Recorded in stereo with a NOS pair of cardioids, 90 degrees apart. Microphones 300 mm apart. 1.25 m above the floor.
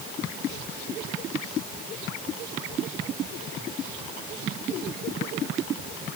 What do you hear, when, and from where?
Only background noise.